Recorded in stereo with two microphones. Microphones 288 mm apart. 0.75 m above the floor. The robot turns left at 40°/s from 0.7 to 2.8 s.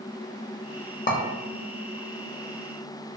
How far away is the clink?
About 0.6 m.